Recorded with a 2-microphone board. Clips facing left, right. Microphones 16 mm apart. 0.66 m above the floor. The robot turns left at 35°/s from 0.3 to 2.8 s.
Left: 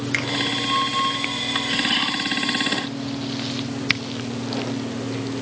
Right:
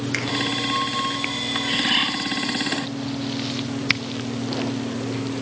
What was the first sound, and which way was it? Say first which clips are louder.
A finger snap: left 3 dB; 20° left (ahead or behind).